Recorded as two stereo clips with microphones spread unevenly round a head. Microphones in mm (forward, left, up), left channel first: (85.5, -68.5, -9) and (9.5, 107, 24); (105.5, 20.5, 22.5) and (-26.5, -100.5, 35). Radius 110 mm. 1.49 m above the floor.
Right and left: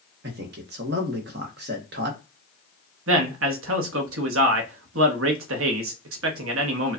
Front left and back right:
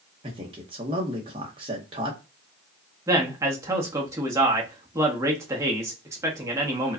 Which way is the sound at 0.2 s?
155° left.